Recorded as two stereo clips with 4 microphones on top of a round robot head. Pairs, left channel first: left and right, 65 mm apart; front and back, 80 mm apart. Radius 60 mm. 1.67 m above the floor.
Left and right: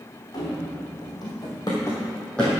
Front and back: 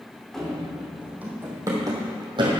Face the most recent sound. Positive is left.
turn(degrees=175)